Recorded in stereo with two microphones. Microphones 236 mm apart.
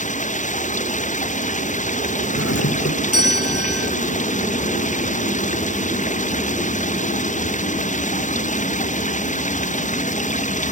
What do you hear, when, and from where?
0.0 s running water: 30° left (ahead or behind)
2.4 s a doorbell: 80° left